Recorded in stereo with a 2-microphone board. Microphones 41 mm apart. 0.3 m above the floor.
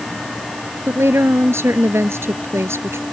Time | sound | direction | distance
0.9 | a woman speaking | 75° right (ahead or behind) | ?